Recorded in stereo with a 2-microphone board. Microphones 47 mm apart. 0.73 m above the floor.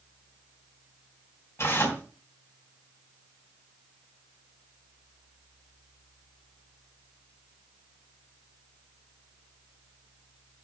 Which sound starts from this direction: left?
Tearing paper, at 1.6 s.